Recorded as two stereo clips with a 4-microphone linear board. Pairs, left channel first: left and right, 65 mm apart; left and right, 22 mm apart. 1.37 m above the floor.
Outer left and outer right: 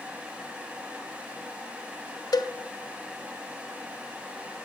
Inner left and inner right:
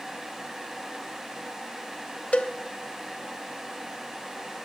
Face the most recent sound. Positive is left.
turn(degrees=75)  # may be behind; listen again after turning